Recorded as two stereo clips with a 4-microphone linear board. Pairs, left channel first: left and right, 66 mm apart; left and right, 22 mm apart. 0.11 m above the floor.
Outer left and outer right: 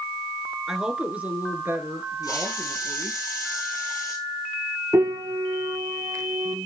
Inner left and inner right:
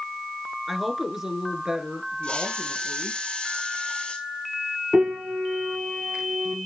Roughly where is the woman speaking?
Centre.